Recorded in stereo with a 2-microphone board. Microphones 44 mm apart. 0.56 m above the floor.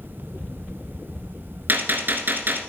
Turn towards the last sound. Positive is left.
turn(degrees=-50)  # may be behind; listen again after turning